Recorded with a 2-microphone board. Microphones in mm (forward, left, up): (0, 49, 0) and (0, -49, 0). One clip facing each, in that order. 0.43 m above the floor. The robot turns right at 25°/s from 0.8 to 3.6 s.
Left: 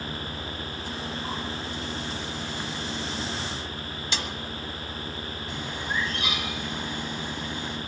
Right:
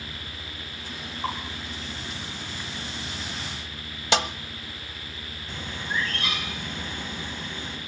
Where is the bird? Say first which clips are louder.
Even; 15° left (ahead or behind), 3.5 m.